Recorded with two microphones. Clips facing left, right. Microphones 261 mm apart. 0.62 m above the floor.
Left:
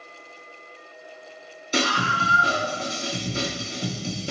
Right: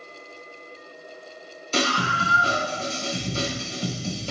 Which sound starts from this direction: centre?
A scream, at 1.7 s.